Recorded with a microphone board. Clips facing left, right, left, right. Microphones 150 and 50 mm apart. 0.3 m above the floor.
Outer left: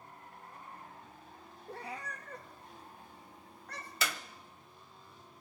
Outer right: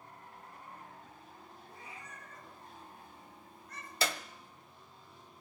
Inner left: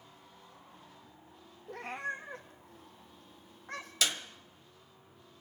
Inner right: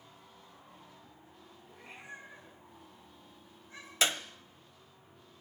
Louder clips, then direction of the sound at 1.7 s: Outer left 11 dB, inner left 11 dB; 80° left.